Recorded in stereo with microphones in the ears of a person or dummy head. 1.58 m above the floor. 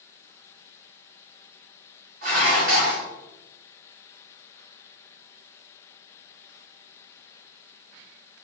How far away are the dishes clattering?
About 1.5 m.